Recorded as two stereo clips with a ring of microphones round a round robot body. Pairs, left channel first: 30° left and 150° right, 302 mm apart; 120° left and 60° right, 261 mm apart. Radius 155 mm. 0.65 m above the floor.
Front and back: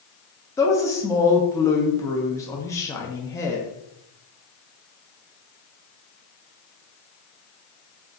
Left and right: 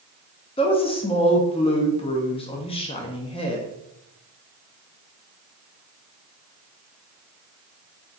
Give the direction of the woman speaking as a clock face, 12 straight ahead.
9 o'clock.